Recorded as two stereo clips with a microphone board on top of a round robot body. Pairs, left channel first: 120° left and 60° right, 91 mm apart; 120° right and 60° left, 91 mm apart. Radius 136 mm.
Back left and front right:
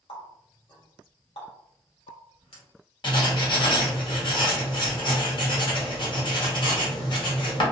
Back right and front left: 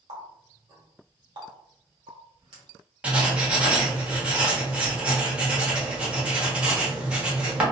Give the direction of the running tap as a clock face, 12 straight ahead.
9 o'clock.